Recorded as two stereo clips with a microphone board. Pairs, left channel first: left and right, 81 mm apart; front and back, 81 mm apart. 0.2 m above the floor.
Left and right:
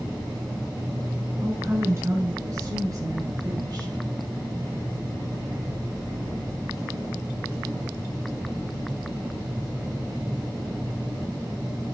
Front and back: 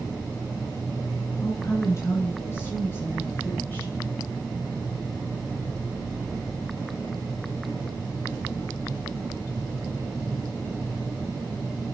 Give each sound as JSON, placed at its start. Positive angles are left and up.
{"t": 1.4, "sound": "a woman speaking", "azimuth_deg": -35, "distance_m": 2.5}